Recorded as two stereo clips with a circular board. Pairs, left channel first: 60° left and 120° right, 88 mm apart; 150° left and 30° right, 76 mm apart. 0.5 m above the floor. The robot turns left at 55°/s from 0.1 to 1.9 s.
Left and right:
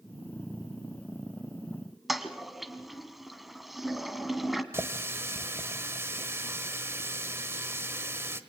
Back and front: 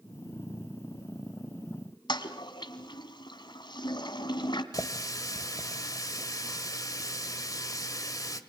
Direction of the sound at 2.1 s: 150° left.